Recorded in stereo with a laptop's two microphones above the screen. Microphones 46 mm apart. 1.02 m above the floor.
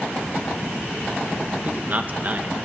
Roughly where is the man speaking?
Right.